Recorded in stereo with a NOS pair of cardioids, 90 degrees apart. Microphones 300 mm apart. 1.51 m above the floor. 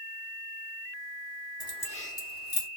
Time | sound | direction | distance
1.6 | keys jangling | 15° left | 1.2 m